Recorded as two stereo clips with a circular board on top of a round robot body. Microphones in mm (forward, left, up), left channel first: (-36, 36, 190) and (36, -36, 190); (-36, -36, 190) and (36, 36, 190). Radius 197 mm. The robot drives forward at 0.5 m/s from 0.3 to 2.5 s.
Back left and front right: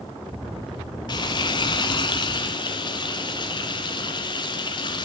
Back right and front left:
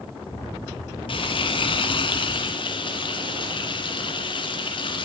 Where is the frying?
175° right, 0.9 m.